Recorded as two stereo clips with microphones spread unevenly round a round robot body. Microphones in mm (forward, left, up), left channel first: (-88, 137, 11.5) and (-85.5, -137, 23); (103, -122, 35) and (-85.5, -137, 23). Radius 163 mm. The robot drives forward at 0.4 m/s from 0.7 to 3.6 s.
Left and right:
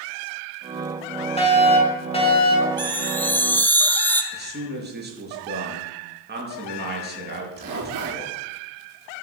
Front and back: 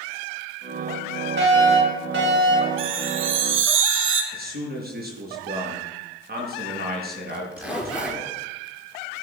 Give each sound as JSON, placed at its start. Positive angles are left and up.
{"t": 1.4, "sound": "a fire alarm", "azimuth_deg": 155, "distance_m": 5.5}
{"t": 2.8, "sound": "a chime", "azimuth_deg": 175, "distance_m": 1.7}
{"t": 4.3, "sound": "a man speaking", "azimuth_deg": -145, "distance_m": 6.5}
{"t": 7.3, "sound": "a zipper", "azimuth_deg": -95, "distance_m": 7.0}